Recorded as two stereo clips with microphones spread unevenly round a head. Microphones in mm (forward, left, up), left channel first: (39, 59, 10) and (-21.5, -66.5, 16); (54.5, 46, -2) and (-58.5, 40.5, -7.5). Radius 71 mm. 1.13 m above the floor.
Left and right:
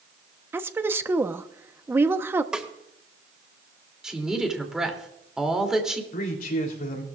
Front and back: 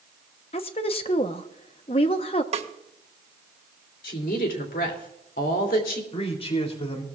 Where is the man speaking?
35° left, 3 m.